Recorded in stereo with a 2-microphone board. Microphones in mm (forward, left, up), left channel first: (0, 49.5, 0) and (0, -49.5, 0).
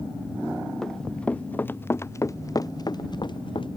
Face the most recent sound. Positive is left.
turn(degrees=50)  # may be behind; listen again after turning